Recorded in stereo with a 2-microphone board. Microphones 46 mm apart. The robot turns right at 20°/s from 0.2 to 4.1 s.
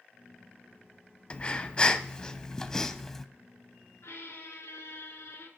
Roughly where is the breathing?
Behind left.